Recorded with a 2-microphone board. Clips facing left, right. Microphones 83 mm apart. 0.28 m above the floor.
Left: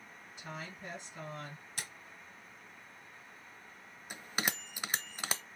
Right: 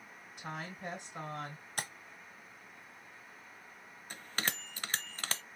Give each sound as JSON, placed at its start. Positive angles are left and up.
{"t": 0.4, "sound": "a woman speaking", "side_deg": -60, "distance_m": 3.0}
{"t": 1.8, "sound": "tapping", "side_deg": -45, "distance_m": 0.7}
{"t": 4.1, "sound": "a bell", "side_deg": 10, "distance_m": 0.5}